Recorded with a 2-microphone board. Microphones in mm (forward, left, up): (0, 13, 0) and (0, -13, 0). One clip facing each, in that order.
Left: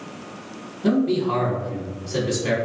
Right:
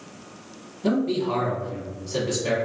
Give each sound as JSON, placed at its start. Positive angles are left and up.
{"t": 0.8, "sound": "a man speaking", "side_deg": 5, "distance_m": 1.2}